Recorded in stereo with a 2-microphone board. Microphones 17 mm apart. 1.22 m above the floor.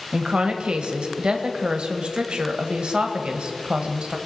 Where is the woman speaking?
70° right (ahead or behind), 1.3 m.